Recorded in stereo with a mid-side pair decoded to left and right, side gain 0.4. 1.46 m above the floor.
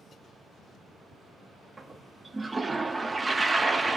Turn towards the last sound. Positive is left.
turn(degrees=-35)